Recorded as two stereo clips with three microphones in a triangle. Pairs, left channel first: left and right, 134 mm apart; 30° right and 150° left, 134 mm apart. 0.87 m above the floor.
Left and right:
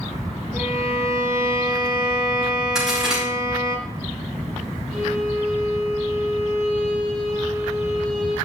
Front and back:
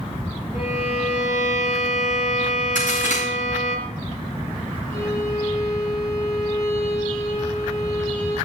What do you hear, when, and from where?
0.5 s a violin: 25° right, 7.5 m
2.8 s a crack: 5° right, 6 m
4.9 s a violin: 55° right, 8 m